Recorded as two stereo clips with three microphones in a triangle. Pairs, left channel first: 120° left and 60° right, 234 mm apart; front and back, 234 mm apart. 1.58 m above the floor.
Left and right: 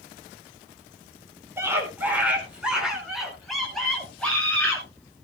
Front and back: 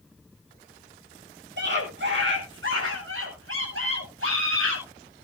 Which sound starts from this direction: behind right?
A scream, at 1.6 s.